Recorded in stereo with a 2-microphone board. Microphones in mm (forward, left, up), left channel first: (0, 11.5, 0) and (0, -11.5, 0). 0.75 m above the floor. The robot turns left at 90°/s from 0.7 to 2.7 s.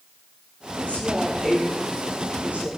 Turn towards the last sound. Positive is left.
turn(degrees=-90)